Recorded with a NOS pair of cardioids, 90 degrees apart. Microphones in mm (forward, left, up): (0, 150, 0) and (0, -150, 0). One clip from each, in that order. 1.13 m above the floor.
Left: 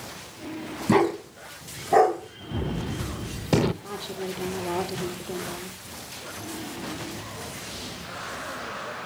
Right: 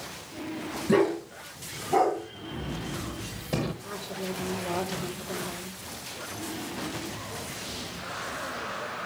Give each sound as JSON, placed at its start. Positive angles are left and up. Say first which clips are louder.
{"t": 0.9, "sound": "a dog barking", "louder": "left 2 dB", "azimuth_deg": 65, "distance_m": 4.0}
{"t": 2.5, "sound": "a gunshot", "louder": "left 4 dB", "azimuth_deg": 50, "distance_m": 0.9}
{"t": 3.8, "sound": "a woman speaking", "louder": "left 2 dB", "azimuth_deg": 60, "distance_m": 4.0}